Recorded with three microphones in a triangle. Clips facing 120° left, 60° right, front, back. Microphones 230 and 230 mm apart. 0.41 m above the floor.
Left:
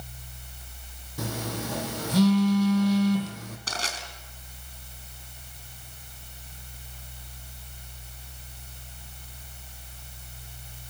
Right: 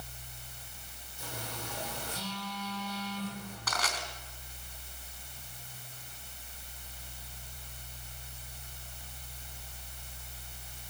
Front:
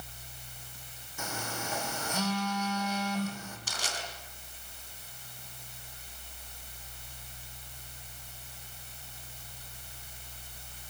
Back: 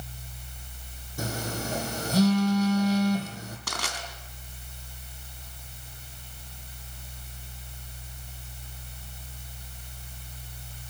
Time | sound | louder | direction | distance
1.2 | a phone buzzing | left 11 dB, back 7 dB | 130° left | 4 m
3.7 | crushing | even, back 4 dB | straight behind | 3.5 m